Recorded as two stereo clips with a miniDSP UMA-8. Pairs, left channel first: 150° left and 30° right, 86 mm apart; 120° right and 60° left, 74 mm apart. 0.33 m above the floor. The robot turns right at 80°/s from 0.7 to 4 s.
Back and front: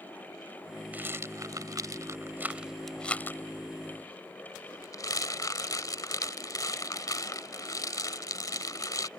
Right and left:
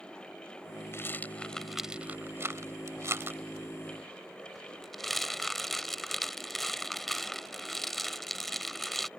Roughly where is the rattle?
Right.